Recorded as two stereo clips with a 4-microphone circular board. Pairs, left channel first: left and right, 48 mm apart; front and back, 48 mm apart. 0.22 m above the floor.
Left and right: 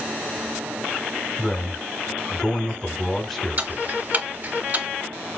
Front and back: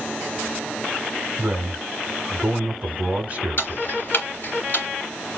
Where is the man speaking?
175° left, 1.1 m.